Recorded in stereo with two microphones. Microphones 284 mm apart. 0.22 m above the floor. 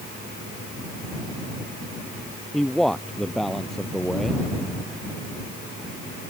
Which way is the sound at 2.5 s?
Centre (ahead or behind).